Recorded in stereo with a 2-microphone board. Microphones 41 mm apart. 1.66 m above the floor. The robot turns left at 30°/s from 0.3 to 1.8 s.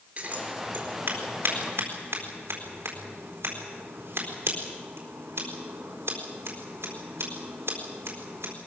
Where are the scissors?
40° right (ahead or behind), 4.5 m; by 8.5 s 85° right, 4.5 m.